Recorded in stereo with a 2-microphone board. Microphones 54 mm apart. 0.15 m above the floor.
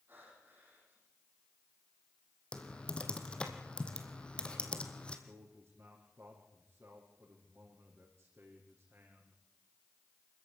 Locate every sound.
0.1 s breathing: 35° right (ahead or behind), 8.5 m
2.5 s typing on a keyboard: 15° left (ahead or behind), 2.5 m
5.3 s a man speaking: 35° right (ahead or behind), 6 m